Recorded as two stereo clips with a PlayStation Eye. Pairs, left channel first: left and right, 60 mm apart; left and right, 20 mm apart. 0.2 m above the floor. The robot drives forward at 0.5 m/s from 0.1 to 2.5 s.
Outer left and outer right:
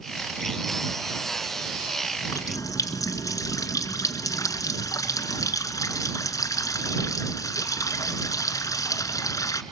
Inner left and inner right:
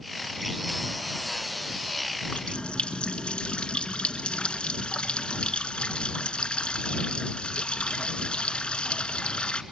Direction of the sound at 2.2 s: 60° left (ahead or behind).